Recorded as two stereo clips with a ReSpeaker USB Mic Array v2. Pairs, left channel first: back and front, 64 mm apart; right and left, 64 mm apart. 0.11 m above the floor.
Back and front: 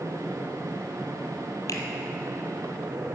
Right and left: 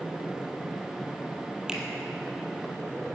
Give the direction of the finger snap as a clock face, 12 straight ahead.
6 o'clock.